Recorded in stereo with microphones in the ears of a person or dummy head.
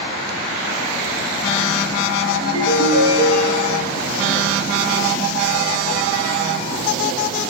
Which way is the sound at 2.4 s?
25° right (ahead or behind).